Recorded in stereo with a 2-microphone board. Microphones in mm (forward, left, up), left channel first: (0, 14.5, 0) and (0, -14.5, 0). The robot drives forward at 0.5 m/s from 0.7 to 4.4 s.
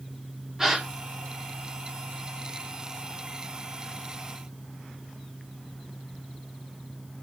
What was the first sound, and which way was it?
A gasp, 20° right (ahead or behind).